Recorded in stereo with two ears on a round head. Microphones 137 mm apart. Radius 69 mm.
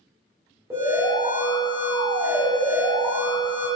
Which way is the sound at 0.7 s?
20° right (ahead or behind).